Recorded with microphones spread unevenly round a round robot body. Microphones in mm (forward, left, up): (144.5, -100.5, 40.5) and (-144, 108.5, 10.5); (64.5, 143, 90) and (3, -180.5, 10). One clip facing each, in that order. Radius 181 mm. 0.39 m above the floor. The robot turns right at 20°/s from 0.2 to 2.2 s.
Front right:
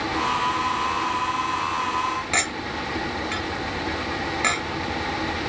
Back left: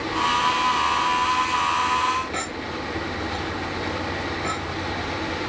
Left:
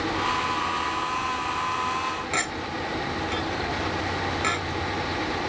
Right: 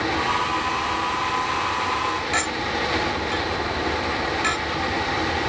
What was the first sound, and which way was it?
A clink, 20° right.